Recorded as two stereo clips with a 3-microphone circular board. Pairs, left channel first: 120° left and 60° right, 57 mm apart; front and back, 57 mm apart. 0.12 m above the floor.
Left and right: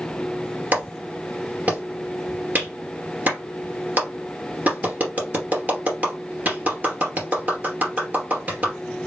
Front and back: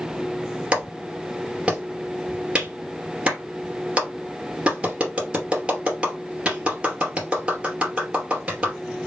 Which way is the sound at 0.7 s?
110° right.